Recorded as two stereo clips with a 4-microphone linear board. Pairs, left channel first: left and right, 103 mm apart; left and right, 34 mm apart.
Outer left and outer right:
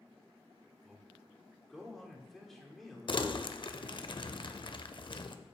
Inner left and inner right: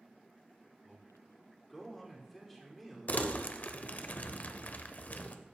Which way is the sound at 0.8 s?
Centre (ahead or behind).